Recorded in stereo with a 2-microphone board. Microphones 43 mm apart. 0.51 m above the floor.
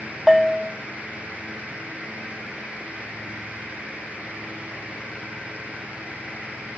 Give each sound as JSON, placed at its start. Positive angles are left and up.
{"t": 0.3, "sound": "a bell", "side_deg": -5, "distance_m": 0.7}